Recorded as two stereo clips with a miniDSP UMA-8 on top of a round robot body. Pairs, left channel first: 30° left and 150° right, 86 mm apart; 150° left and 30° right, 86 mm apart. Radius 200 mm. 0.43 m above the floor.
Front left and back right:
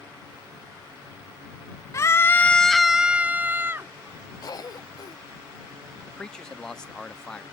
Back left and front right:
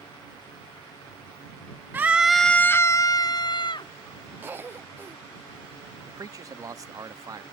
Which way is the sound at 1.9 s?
20° left.